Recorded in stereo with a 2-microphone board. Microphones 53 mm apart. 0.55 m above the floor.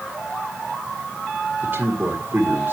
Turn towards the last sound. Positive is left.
turn(degrees=-45)  # may be behind; listen again after turning